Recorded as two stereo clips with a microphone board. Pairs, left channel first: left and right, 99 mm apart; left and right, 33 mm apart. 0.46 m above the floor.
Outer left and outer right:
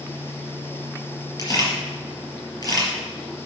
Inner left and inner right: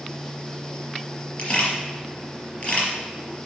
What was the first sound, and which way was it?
A camera shutter, 40° left (ahead or behind).